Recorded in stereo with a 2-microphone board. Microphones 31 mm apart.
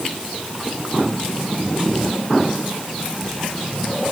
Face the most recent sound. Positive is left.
No sound to turn to.